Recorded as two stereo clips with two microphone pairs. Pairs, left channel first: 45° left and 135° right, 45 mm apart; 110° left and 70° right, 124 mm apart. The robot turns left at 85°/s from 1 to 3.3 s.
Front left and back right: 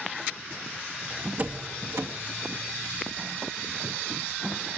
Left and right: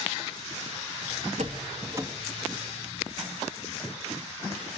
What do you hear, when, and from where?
1.4 s a door slam: 85° right, 2 m; by 2.1 s 145° right, 2 m